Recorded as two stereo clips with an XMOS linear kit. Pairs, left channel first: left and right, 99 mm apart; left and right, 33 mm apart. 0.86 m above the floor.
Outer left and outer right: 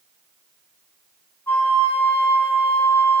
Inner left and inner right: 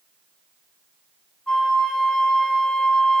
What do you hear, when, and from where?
1.5 s a flute: 20° left (ahead or behind), 1.4 m